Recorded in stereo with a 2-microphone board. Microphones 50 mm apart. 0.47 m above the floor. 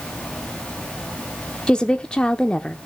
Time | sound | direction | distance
1.7 | a woman speaking | 20° left (ahead or behind) | 0.7 m